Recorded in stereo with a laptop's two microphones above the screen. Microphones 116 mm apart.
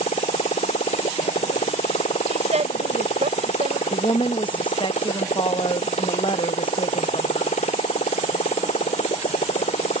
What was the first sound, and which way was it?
A motorcycle, 75° left (ahead or behind).